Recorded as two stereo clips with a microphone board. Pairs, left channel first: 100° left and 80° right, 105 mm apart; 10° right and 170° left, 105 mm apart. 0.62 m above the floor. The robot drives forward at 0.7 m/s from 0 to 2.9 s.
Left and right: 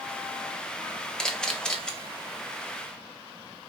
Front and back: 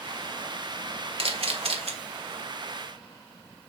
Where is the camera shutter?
175° right, 1.9 m.